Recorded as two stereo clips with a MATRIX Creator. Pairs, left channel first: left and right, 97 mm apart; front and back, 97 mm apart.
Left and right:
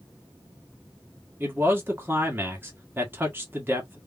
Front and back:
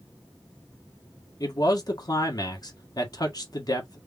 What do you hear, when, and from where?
1.4 s a man speaking: 25° right, 1.3 m